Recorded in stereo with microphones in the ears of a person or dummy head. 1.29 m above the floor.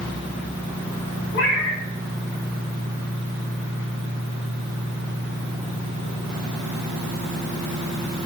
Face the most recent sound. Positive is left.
turn(degrees=70)  # may be behind; listen again after turning